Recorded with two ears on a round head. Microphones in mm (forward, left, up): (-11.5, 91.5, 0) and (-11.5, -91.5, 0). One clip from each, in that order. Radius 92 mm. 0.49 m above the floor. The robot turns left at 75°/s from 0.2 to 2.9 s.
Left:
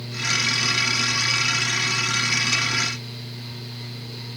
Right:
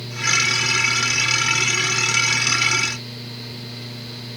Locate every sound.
Only background noise.